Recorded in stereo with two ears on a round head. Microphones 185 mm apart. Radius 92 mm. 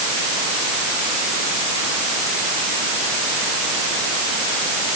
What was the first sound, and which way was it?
Only background noise.